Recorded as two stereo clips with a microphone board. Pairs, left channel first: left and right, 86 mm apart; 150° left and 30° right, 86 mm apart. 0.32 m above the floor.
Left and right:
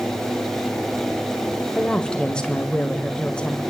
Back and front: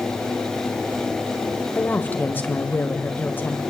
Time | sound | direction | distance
1.8 | a woman speaking | 150° left | 1.5 m